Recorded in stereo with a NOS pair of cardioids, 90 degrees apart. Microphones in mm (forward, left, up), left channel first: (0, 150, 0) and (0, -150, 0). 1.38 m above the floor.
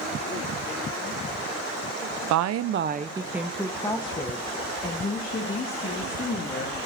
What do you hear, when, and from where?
2.3 s a woman speaking: 70° right, 0.8 m; by 6.8 s 35° left, 3.5 m